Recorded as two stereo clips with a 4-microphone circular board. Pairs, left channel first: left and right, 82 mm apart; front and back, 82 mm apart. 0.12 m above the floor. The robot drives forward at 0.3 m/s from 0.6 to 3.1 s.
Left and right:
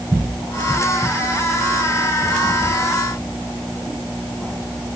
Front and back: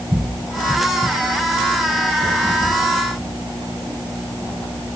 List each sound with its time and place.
Only background noise.